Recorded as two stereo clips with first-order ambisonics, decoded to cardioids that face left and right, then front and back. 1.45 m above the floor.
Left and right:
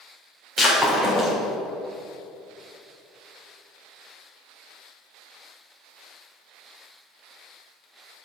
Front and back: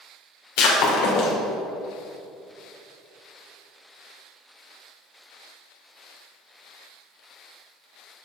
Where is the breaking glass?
10° right, 1.8 m.